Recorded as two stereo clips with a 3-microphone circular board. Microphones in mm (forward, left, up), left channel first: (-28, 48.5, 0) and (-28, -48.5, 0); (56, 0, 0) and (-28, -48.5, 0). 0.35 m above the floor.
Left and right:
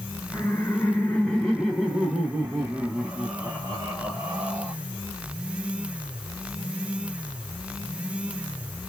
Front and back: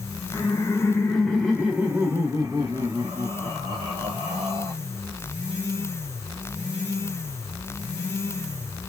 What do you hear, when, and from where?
0.3 s laughter: 35° left, 1.3 m; by 4.7 s 155° right, 2 m